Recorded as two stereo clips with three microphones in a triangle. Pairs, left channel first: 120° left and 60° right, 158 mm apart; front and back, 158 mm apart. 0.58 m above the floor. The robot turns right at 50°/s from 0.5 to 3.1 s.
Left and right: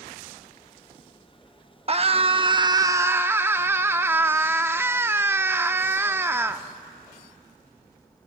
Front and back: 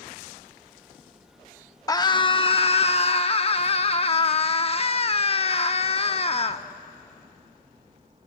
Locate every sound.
1.9 s a scream: 55° right, 0.8 m; by 6.6 s 5° left, 0.8 m